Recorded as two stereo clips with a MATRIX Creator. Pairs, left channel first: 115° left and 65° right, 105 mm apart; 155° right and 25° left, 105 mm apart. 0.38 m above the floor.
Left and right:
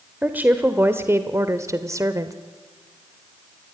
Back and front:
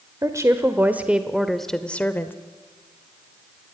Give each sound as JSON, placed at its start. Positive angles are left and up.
{"t": 0.2, "sound": "a woman speaking", "azimuth_deg": -5, "distance_m": 1.4}